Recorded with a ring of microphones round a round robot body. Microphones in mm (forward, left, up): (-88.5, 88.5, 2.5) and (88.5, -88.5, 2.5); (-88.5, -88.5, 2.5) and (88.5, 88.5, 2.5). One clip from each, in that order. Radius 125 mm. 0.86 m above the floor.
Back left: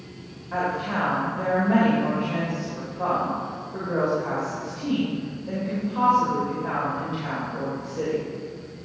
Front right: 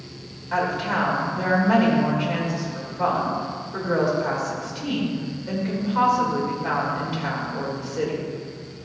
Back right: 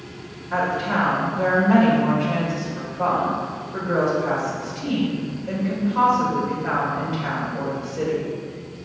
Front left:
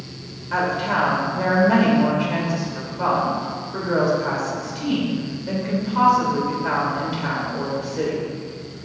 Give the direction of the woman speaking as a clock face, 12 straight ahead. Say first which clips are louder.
Front right 3 dB, front left 1 dB; 1 o'clock.